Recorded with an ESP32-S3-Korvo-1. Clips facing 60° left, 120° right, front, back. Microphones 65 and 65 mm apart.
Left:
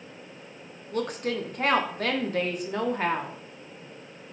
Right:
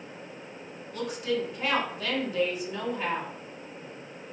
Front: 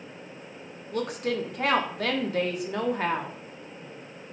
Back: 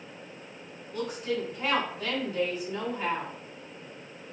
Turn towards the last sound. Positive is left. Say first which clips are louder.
# left 1 dB, front 3 dB
turn(degrees=25)